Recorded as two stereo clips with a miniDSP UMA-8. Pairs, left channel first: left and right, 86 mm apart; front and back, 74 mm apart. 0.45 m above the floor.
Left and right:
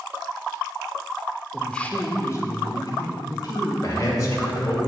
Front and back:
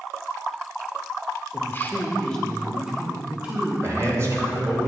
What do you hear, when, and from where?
1.5 s a man speaking: 10° left, 1.1 m; by 3.7 s 110° left, 2 m
3.8 s a man speaking: 135° left, 2.5 m